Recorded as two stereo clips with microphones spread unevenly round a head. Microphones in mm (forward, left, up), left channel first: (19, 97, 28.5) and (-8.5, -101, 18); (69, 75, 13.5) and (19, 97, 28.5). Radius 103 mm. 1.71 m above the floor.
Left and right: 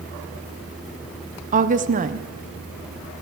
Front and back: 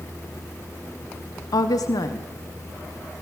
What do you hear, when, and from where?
1.5 s a woman speaking: 45° right, 1.5 m